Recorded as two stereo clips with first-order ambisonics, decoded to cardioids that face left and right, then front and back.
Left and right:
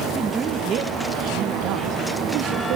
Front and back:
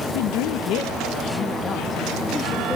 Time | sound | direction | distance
0.1 | a woman speaking | 10° right | 1.3 m